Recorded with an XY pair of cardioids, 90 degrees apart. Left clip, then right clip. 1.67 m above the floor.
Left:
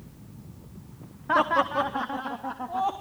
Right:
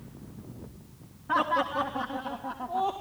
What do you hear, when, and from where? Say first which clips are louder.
1.3 s laughter: left 4 dB; 50° left, 1.4 m; by 2.9 s 60° left, 3.5 m